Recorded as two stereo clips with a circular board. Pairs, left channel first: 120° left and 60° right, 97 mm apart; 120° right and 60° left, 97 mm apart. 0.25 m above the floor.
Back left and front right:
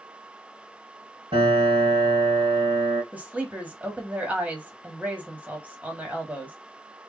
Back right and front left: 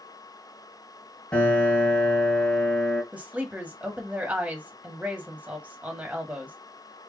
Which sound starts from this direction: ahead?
A woman speaking, at 3.1 s.